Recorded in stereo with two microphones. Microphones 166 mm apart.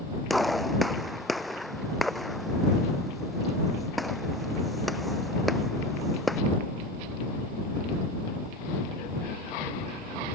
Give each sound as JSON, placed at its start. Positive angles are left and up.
{"t": 0.3, "sound": "a gunshot", "side_deg": 0}